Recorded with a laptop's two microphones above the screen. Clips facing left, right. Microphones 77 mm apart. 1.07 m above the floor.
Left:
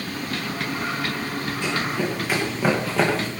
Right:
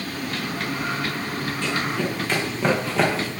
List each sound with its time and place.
1.6 s running footsteps: 15° left (ahead or behind), 5 m; by 3.3 s centre (ahead or behind), 4.5 m